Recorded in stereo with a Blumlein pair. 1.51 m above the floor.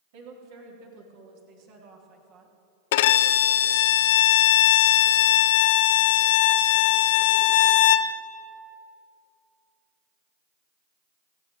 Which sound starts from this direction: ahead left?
A violin, at 2.9 s.